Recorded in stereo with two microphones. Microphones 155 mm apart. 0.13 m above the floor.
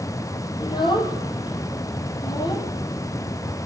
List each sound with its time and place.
0.6 s a child speaking: 30° left (ahead or behind), 3 m